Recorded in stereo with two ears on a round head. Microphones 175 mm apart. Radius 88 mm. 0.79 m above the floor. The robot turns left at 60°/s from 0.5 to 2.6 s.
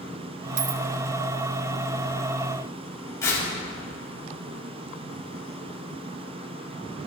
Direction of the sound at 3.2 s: 15° left (ahead or behind).